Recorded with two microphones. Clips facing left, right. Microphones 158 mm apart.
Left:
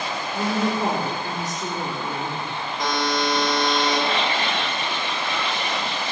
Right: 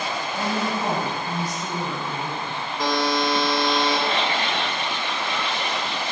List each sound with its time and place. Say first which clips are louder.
0.3 s a woman speaking: left 4 dB; 80° left, 3.5 m
2.8 s a buzzer: right 2 dB; centre (ahead or behind), 2 m